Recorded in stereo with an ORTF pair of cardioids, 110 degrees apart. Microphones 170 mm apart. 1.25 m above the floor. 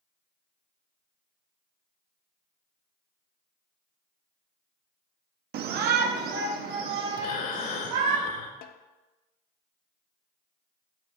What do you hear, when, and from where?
5.5 s a shout: 70° right, 0.5 m; by 8.2 s 80° right, 2 m
7.2 s breathing: 55° left, 0.9 m
8.6 s a snare drum: 60° left, 0.5 m